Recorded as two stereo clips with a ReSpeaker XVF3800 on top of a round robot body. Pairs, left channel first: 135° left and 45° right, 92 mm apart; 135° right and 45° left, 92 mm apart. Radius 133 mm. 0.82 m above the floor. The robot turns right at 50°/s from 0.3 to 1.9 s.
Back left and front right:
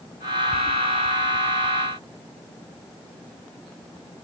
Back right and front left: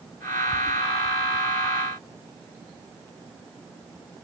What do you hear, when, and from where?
Only background noise.